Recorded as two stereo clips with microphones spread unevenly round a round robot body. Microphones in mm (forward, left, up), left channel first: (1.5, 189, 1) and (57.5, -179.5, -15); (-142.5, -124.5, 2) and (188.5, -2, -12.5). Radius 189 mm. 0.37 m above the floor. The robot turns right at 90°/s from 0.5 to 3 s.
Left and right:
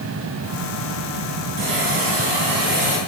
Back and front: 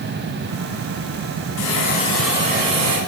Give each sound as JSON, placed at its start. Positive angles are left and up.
{"t": 1.6, "sound": "a hiss", "azimuth_deg": -130, "distance_m": 4.0}